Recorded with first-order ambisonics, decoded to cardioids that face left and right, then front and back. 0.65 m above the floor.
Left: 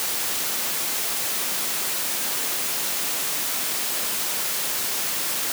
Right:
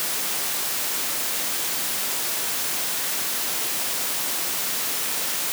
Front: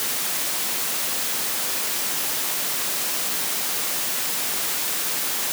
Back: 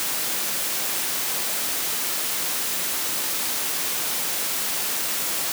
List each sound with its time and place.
Only background noise.